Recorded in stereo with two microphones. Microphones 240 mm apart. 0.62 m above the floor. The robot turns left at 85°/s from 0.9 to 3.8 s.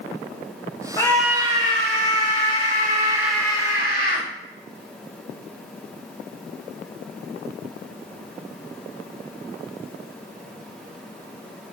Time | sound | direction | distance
1.0 | a scream | 20° left | 3 m